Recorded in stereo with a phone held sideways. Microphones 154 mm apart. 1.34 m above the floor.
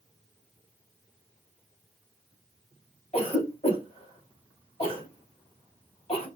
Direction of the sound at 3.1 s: 40° left (ahead or behind).